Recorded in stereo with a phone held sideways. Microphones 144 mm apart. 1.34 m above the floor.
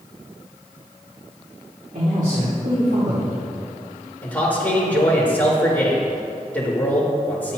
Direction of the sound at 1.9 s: 85° right.